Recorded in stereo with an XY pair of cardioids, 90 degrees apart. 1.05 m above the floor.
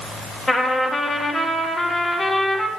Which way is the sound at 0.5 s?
35° left.